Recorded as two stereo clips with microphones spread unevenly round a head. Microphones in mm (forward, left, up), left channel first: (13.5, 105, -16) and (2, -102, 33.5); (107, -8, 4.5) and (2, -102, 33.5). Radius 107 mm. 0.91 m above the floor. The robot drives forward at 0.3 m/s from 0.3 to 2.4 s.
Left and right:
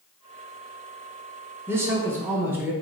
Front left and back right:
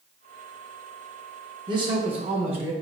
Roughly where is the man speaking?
Behind.